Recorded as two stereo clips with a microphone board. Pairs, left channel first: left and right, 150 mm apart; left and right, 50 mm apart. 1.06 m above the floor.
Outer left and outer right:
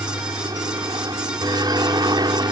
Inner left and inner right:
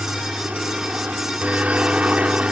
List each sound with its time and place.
0.0 s a helicopter: 25° right (ahead or behind)